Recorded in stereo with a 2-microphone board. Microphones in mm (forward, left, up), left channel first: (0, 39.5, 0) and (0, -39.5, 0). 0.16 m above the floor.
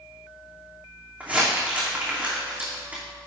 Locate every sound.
1.2 s crumpling: 20° right (ahead or behind), 2.5 m